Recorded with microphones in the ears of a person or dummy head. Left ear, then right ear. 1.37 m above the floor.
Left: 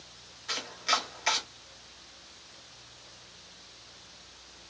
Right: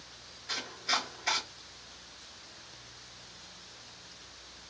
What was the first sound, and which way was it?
Chopping, 35° left (ahead or behind).